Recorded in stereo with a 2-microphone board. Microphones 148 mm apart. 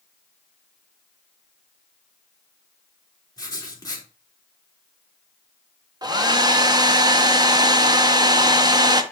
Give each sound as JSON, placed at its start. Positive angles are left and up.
{"t": 3.4, "sound": "writing", "side_deg": 25, "distance_m": 3.0}
{"t": 6.0, "sound": "a hair dryer", "side_deg": -25, "distance_m": 1.1}